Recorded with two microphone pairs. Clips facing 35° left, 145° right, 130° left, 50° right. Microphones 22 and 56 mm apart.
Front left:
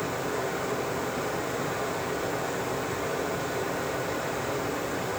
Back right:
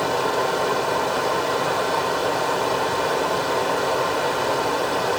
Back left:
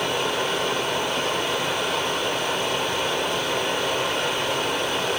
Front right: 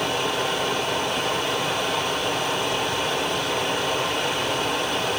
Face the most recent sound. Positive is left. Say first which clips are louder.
# back right 9 dB, even
turn(degrees=-140)